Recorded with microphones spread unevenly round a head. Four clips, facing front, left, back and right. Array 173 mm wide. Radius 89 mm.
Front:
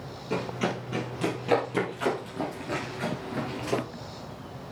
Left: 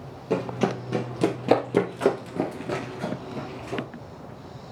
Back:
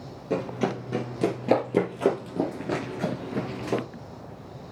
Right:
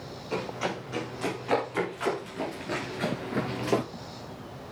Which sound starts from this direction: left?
Running footsteps, at 0.3 s.